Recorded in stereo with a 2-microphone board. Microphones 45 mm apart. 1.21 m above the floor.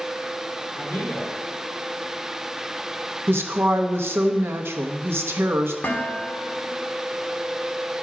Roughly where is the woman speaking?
Right.